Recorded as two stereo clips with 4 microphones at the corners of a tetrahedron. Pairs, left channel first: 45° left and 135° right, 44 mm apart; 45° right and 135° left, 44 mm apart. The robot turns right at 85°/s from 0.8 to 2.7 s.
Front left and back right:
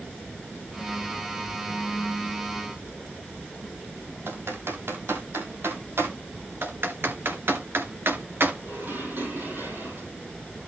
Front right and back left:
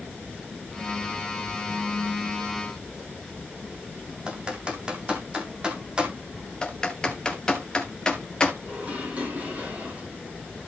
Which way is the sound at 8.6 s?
170° right.